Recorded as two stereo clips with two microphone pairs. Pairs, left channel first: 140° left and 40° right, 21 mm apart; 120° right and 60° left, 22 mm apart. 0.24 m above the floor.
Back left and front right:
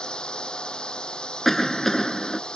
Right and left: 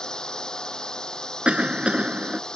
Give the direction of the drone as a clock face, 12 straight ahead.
6 o'clock.